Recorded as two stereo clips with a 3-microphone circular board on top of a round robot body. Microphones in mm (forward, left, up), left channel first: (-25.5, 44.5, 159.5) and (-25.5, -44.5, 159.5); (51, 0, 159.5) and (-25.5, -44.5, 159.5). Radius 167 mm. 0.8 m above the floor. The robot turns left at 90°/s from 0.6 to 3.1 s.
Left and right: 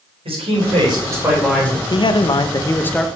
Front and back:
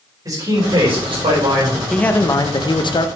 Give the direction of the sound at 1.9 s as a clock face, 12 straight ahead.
8 o'clock.